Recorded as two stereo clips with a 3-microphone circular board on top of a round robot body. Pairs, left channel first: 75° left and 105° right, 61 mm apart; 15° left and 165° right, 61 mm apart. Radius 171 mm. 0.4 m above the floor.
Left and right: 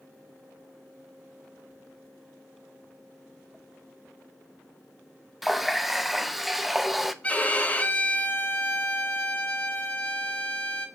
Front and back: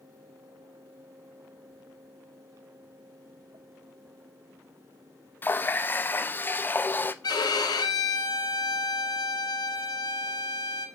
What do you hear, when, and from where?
5.4 s a running tap: 20° right, 0.6 m
7.2 s a violin: 5° left, 0.6 m